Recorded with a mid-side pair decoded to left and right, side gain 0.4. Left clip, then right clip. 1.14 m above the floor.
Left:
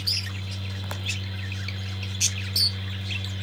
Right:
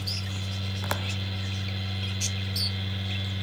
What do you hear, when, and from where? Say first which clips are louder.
0.0 s a fan: left 5 dB; 35° right, 0.8 m